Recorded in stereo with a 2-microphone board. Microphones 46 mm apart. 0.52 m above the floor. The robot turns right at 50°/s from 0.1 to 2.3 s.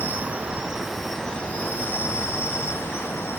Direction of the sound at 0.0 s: 40° right.